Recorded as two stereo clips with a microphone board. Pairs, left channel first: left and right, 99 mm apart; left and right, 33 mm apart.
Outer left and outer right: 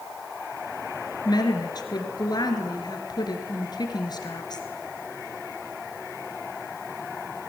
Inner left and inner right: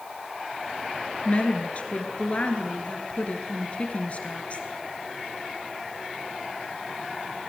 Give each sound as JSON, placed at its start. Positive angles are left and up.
{"t": 1.2, "sound": "a woman speaking", "side_deg": 40, "distance_m": 2.5}